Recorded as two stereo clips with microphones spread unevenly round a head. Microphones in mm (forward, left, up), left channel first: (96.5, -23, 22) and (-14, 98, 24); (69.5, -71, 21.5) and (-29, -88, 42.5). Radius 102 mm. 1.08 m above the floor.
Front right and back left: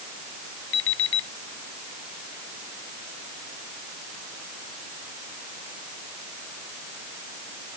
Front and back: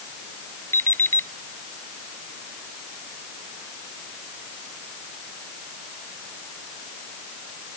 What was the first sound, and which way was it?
An alarm clock, 60° right.